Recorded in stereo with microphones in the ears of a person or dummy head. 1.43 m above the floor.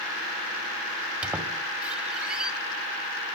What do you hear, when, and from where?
1.2 s a squeak: 10° right (ahead or behind), 2.5 m